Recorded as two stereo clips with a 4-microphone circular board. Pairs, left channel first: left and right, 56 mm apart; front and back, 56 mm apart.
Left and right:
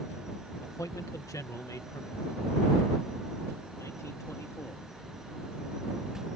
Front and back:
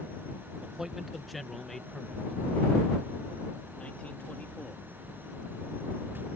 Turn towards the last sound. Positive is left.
turn(degrees=65)